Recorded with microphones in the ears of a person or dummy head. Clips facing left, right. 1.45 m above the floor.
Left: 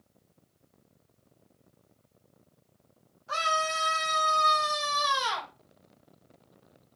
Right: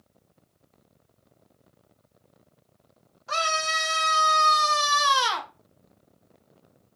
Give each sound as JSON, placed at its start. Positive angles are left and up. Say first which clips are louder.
{"t": 3.3, "sound": "a scream", "louder": "right 1 dB", "side_deg": -75, "distance_m": 2.0}